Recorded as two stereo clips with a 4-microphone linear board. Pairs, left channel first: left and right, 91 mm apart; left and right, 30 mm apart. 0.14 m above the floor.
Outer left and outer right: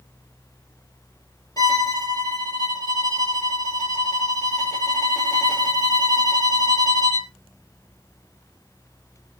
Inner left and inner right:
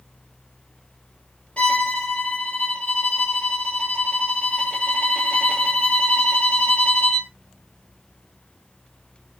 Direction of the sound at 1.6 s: 45° left (ahead or behind).